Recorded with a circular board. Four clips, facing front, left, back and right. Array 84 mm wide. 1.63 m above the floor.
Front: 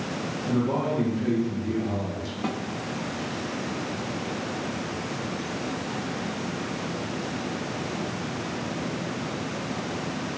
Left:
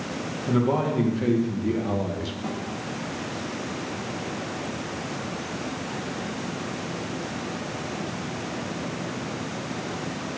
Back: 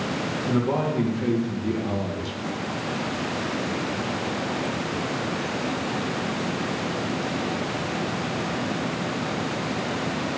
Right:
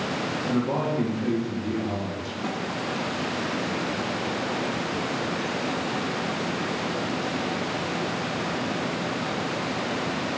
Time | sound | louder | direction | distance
0.5 | a man speaking | left 3 dB, back 1 dB | 125° left | 2.5 m
2.4 | a snare drum | right 3 dB, front 3 dB | 10° right | 1.4 m